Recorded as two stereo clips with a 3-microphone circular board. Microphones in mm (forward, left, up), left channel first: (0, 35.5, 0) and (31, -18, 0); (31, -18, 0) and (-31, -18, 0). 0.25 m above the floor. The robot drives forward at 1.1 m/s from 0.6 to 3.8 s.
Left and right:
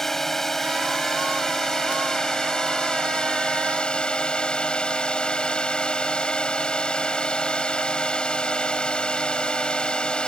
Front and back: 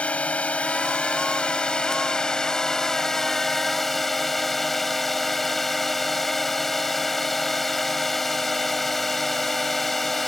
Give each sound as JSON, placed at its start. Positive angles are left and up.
{"t": 0.0, "sound": "a drone", "azimuth_deg": 40}